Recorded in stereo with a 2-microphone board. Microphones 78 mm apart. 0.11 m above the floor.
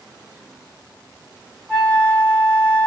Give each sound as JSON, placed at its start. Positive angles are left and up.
{"t": 1.7, "sound": "a flute", "side_deg": -25, "distance_m": 2.5}